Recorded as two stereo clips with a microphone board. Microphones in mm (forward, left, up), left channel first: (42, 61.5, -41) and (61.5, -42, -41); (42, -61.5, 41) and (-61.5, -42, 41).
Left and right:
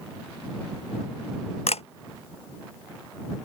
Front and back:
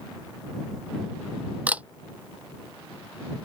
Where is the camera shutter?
95° left.